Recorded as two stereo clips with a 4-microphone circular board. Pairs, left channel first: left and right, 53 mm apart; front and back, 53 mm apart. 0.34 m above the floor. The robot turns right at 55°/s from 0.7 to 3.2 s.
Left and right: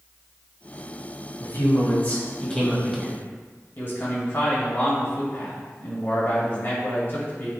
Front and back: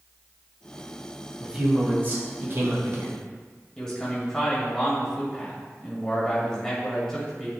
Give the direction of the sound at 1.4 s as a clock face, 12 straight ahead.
9 o'clock.